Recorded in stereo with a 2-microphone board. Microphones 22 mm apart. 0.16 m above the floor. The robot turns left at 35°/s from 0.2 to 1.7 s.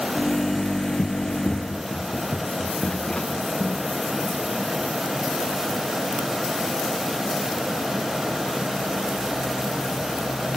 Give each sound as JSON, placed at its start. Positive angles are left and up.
{"t": 1.0, "sound": "running footsteps", "side_deg": 65, "distance_m": 0.7}